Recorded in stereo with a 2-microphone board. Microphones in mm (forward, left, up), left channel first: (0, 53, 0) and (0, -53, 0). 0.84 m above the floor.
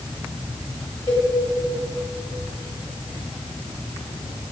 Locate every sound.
1.1 s a cowbell: 35° left (ahead or behind), 2.5 m